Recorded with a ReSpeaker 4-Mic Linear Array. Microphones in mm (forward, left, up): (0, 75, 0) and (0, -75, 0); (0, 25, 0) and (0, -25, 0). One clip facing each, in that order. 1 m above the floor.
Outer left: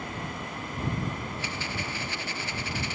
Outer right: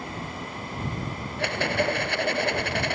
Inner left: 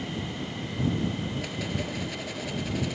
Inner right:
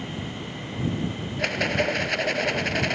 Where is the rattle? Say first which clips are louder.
Outer right 10 dB, inner right 8 dB; 65° right (ahead or behind).